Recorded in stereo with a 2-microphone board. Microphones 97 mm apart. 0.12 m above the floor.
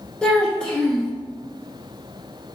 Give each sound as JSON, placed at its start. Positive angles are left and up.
{"t": 0.2, "sound": "a child speaking", "side_deg": 10, "distance_m": 0.8}